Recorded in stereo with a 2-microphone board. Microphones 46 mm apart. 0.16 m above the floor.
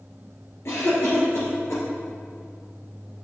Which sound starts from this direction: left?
A cough, at 0.7 s.